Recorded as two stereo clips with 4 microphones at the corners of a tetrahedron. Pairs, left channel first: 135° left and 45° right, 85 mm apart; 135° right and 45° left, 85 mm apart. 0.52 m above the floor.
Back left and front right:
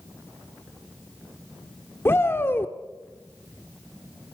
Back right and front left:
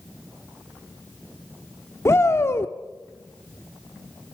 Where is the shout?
175° right, 0.8 m.